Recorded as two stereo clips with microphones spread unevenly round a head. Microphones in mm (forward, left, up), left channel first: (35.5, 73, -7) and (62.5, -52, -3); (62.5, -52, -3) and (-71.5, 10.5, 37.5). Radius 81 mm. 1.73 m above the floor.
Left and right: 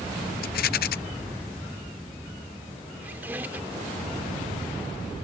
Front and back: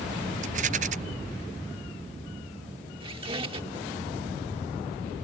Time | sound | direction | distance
0.4 | a rattle | 105° left | ?
3.0 | a squeak | 155° right | ?